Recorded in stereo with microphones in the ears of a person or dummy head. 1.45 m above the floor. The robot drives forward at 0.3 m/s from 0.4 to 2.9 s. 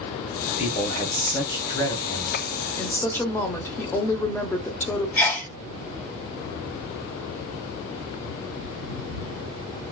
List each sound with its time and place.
0.5 s a man speaking: 35° left (ahead or behind), 0.8 m; by 2.7 s 20° left (ahead or behind), 1.3 m
2.8 s a woman speaking: 15° left (ahead or behind), 0.7 m
5.2 s a sneeze: 15° left (ahead or behind), 0.7 m